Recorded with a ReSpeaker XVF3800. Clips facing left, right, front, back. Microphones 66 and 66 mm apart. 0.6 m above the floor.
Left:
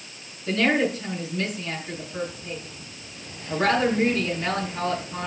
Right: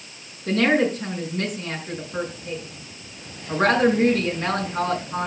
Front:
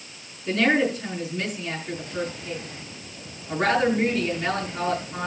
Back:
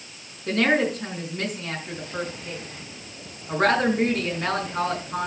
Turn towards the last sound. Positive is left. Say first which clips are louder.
# right 3 dB, even
turn(degrees=-140)